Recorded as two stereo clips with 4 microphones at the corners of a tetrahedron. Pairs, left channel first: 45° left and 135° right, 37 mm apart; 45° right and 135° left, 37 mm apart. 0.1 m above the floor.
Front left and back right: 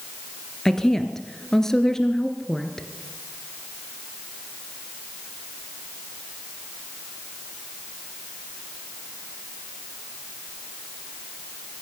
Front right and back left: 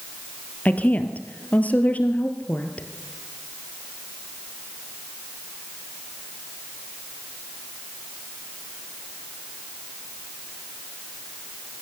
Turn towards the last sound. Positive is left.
turn(degrees=-30)